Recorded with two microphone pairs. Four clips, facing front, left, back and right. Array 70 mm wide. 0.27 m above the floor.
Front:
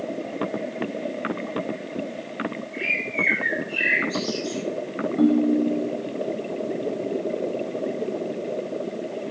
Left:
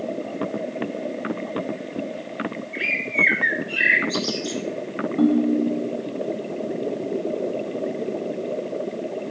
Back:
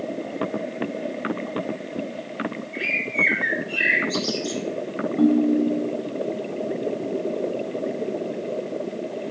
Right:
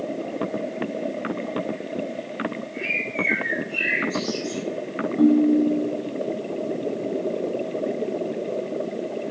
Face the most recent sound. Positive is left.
turn(degrees=85)